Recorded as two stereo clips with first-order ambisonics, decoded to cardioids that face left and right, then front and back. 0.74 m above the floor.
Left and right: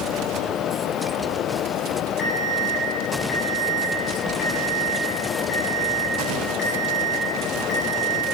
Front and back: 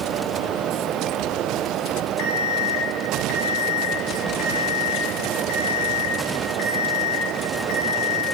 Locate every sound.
2.2 s an alarm clock: 20° left, 1.8 m